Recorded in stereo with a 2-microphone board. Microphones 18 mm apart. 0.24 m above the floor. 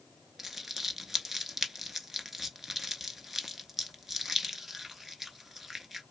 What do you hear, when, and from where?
0.4 s crumpling: 15° right (ahead or behind), 0.6 m